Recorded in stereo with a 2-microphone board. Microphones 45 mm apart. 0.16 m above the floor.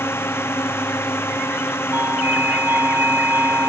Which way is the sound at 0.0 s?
70° left (ahead or behind).